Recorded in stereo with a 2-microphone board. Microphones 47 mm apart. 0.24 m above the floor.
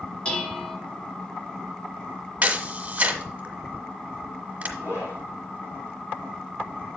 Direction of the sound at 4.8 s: 75° left (ahead or behind).